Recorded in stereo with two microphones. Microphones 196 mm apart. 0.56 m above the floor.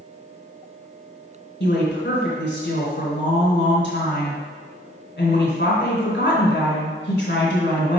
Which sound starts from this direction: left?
A woman speaking, at 1.6 s.